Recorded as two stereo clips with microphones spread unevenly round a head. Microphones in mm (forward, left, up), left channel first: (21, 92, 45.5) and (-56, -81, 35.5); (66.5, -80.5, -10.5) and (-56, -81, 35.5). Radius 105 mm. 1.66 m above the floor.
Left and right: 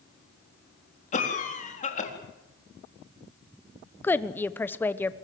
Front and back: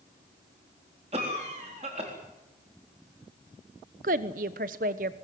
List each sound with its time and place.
1.1 s a cough: 120° left, 4 m
4.0 s a woman speaking: 145° left, 1.0 m